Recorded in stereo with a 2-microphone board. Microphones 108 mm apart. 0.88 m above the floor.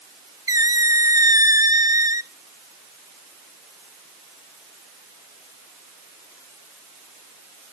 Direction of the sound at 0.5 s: 30° right (ahead or behind).